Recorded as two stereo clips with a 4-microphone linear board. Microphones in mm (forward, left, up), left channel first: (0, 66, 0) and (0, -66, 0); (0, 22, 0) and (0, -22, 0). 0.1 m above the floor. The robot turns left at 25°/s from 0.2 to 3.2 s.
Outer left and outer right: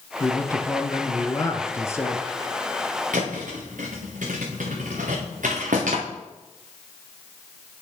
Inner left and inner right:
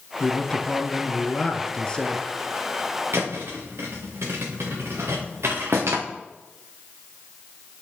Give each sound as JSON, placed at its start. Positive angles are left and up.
{"t": 0.2, "sound": "a man speaking", "side_deg": 20, "distance_m": 1.1}
{"t": 3.1, "sound": "a thud", "side_deg": -85, "distance_m": 2.5}